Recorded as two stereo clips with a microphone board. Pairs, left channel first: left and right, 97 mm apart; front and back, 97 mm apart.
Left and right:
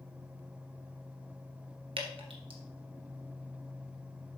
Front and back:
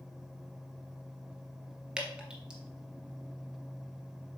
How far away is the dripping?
About 1.6 m.